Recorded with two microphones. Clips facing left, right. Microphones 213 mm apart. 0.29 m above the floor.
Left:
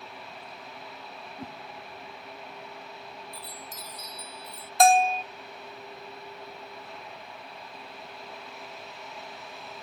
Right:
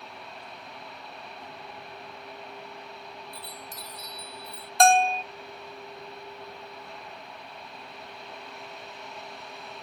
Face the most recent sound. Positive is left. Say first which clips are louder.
# even
turn(degrees=5)  # may be behind; listen again after turning